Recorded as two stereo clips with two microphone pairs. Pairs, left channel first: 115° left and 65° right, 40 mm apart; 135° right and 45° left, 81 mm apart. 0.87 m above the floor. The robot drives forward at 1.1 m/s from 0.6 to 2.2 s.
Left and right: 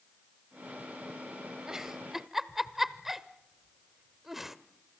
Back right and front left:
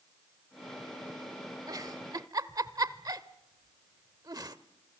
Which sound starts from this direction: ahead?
A giggle, at 1.7 s.